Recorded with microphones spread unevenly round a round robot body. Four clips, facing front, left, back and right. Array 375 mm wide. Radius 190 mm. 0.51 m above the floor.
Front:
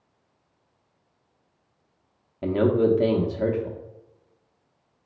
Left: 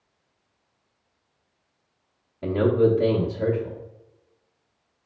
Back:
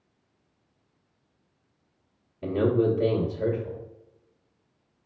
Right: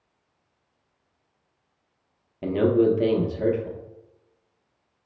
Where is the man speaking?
120° right, 0.7 m.